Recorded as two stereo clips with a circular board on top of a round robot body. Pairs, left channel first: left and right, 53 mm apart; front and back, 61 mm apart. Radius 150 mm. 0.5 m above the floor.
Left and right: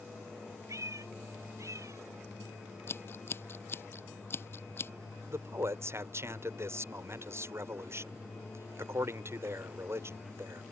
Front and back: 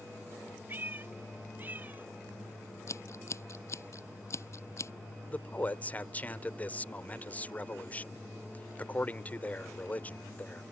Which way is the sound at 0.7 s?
120° right.